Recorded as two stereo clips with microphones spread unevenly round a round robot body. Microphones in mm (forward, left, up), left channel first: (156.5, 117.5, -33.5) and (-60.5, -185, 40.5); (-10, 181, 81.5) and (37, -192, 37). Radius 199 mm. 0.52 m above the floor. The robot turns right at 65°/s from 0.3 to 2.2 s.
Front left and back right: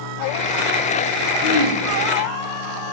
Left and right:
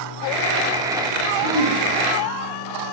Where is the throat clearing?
145° left, 3 m; by 1.8 s 170° left, 3 m.